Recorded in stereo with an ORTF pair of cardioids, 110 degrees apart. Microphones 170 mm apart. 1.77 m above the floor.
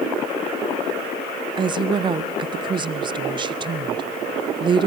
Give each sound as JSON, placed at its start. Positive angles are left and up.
{"t": 1.6, "sound": "a woman speaking", "azimuth_deg": -30, "distance_m": 0.5}